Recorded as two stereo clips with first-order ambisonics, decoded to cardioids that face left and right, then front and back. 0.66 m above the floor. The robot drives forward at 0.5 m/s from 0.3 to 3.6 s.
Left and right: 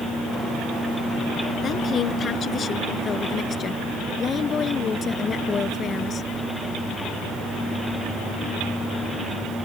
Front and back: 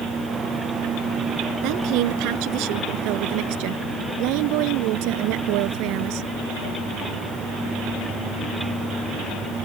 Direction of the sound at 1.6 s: 150° left.